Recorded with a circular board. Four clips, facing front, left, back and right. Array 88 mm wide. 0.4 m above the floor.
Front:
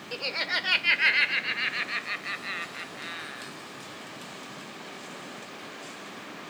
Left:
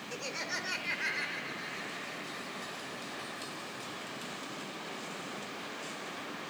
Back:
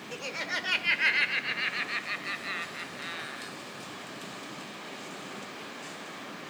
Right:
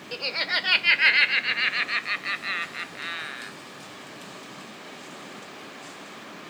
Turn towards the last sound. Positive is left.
turn(degrees=-85)